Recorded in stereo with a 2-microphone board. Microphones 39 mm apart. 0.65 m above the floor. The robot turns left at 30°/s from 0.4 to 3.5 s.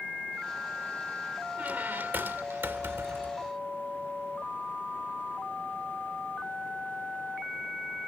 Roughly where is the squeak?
Ahead right.